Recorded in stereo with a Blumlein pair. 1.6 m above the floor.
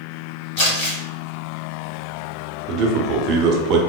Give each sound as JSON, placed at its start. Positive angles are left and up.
{"t": 0.6, "sound": "crumpling", "azimuth_deg": 50, "distance_m": 1.9}
{"t": 2.7, "sound": "a man speaking", "azimuth_deg": -35, "distance_m": 0.6}